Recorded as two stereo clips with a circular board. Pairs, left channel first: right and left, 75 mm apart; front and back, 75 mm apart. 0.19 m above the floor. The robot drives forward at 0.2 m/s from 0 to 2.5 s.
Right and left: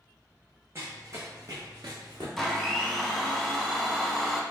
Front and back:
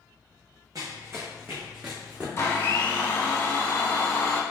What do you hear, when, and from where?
0.8 s running footsteps: 145° left, 1.0 m; by 2.3 s 105° left, 1.2 m
2.4 s a blender: straight ahead, 0.6 m